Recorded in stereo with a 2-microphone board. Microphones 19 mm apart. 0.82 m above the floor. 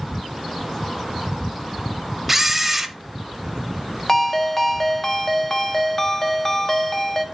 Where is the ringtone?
20° left (ahead or behind), 0.7 m.